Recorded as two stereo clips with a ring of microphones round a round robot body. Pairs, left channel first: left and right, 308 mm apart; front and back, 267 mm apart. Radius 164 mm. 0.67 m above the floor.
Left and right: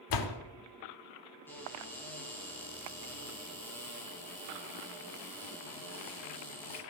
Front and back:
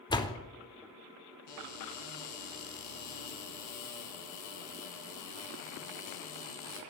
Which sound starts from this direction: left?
A door slam, at 0.1 s.